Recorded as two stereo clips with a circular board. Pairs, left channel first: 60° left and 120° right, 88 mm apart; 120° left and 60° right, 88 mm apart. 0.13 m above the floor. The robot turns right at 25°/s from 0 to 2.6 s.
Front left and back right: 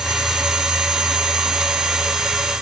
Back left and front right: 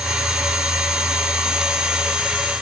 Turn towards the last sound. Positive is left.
No sound to turn to.